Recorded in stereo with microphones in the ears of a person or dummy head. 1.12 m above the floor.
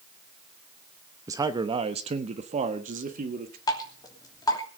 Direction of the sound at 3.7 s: 20° left (ahead or behind).